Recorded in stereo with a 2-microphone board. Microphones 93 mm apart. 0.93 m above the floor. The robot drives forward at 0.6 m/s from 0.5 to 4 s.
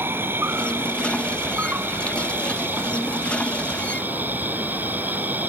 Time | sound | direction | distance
0.0 | an insect | 20° right (ahead or behind) | ?